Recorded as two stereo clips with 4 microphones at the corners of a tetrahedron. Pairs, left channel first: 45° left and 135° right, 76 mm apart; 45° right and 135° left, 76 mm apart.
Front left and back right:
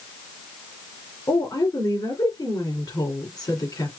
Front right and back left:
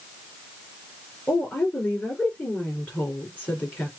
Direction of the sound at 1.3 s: 20° left.